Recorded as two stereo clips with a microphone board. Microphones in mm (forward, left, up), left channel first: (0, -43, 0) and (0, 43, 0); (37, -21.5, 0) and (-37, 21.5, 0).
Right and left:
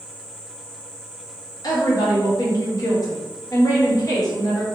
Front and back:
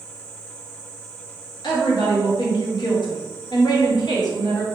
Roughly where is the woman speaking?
Ahead right.